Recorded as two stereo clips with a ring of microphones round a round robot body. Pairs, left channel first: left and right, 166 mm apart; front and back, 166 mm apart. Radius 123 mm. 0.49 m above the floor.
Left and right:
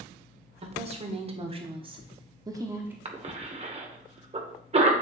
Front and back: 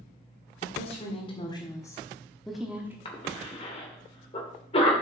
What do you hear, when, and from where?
0.6 s a woman speaking: 45° right, 2 m; by 3.0 s 140° right, 1.2 m
3.0 s a cough: 50° right, 2 m